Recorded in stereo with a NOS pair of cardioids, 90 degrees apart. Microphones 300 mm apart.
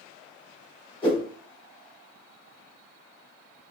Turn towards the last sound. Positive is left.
turn(degrees=15)